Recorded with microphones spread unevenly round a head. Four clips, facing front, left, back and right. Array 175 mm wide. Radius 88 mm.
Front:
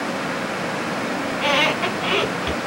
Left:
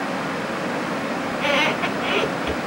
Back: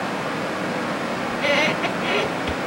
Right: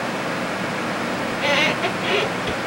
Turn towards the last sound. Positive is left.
turn(degrees=10)